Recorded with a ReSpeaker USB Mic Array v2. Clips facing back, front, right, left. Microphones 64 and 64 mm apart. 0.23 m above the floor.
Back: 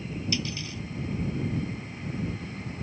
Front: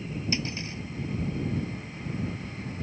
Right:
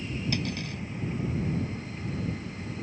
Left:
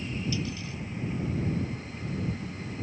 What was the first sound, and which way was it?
Cutlery clinking, 55° right.